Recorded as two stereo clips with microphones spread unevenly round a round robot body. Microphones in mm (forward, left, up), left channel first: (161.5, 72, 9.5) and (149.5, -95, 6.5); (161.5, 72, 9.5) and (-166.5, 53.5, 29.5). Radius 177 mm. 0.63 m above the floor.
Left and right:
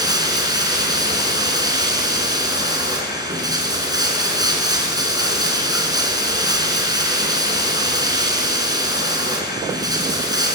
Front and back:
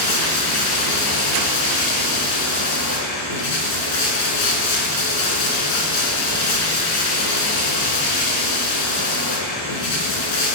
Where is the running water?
25° right, 5 m.